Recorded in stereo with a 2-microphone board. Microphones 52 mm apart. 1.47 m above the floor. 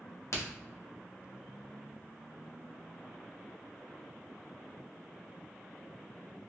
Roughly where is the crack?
Left.